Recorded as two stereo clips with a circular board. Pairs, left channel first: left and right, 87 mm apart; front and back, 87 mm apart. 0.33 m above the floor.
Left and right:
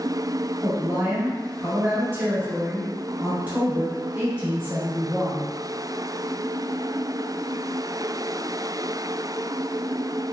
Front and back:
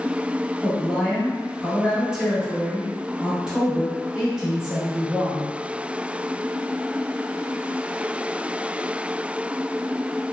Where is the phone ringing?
No phone ringing in this recording.